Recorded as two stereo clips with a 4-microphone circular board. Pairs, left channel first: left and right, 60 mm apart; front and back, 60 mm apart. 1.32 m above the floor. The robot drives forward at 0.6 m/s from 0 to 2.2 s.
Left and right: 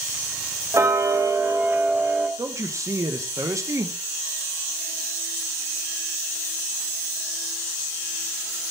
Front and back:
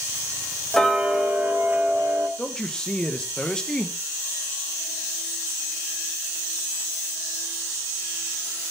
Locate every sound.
0.7 s ticking: 80° right, 0.6 m; by 2.3 s 145° right, 1.0 m
2.4 s a man speaking: 75° right, 0.5 m